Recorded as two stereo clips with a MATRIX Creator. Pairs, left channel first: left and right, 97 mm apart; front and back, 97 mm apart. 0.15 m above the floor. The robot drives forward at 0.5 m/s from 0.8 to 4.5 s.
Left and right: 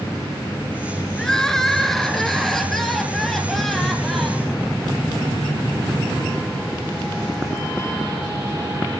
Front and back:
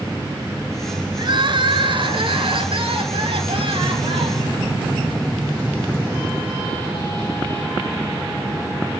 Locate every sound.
1.2 s crying: 175° left, 1.4 m; by 4.5 s straight behind, 3 m